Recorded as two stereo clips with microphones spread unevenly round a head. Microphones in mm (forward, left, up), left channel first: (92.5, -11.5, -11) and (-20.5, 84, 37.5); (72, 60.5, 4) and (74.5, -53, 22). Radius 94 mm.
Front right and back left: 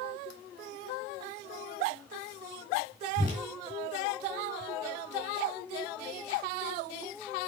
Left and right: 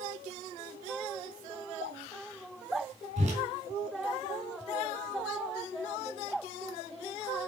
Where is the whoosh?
90° right, 3 m.